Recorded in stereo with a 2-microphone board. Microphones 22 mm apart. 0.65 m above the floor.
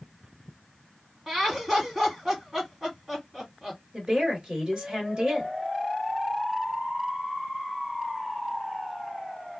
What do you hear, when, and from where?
1.3 s laughter: 20° right (ahead or behind), 2 m
3.9 s a woman speaking: 40° right (ahead or behind), 1.7 m